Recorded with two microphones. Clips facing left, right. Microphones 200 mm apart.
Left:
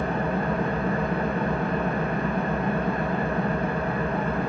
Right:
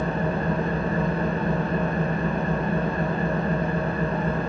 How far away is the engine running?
About 3 m.